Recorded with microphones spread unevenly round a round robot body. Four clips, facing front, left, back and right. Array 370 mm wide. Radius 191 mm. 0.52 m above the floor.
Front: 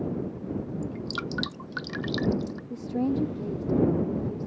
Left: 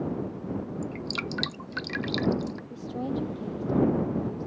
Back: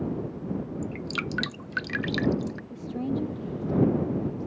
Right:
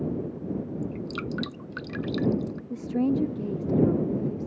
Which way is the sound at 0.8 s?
70° left.